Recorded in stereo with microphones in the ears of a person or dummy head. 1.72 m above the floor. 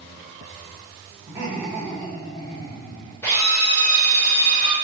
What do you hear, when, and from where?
1.3 s laughter: 10° right (ahead or behind), 1.0 m; by 3.1 s 55° left (ahead or behind), 1.5 m
3.2 s a drill: 25° left (ahead or behind), 1.5 m